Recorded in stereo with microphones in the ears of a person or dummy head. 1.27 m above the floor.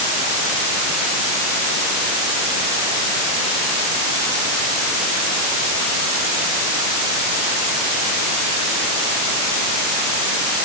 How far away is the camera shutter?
No camera shutter in this recording.